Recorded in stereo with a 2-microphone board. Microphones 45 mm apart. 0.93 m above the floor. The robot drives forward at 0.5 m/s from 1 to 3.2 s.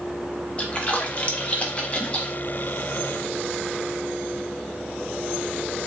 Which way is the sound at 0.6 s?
25° left (ahead or behind).